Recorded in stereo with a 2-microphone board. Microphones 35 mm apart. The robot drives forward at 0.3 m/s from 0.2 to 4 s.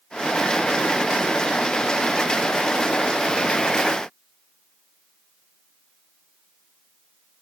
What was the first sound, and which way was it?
Only background noise.